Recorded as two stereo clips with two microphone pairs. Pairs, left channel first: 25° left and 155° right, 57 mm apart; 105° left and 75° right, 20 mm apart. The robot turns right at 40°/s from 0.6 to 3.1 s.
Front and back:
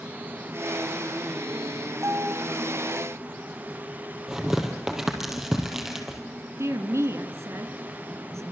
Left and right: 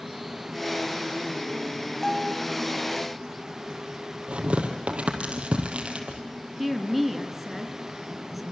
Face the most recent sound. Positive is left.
turn(degrees=-155)